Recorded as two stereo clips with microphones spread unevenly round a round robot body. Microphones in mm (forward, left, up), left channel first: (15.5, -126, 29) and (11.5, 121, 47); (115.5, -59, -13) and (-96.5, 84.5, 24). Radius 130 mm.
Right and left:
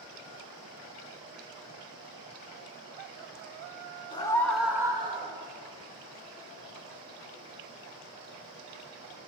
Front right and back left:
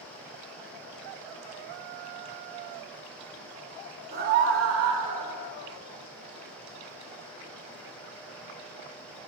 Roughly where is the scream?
Behind right.